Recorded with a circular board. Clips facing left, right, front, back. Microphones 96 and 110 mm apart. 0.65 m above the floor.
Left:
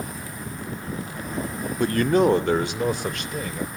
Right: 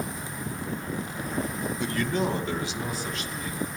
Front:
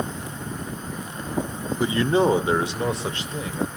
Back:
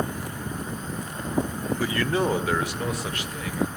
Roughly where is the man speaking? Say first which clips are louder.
Left 10 dB, front 6 dB; ahead left.